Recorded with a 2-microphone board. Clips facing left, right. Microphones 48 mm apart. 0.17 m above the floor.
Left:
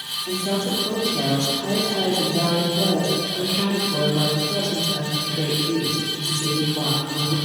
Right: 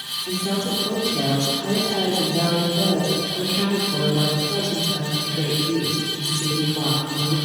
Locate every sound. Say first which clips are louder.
0.3 s a woman speaking: left 1 dB; 25° right (ahead or behind), 3.5 m